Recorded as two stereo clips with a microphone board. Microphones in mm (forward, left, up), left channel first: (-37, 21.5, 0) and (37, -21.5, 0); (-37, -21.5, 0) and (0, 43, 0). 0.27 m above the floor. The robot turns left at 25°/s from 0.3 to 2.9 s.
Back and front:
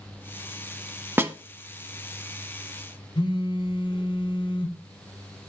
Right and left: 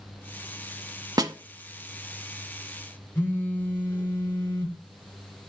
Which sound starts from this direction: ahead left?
A snare drum, at 1.2 s.